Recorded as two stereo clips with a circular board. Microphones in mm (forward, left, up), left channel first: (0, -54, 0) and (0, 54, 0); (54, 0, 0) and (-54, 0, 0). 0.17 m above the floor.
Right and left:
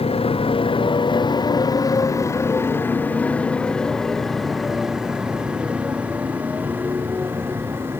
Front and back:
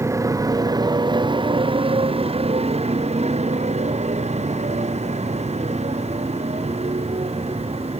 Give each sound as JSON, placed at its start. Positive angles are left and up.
{"t": 0.0, "sound": "a motorcycle", "azimuth_deg": -115}